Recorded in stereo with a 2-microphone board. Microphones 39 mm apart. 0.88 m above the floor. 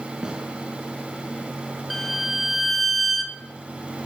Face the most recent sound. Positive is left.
turn(degrees=0)  # may be behind; listen again after turning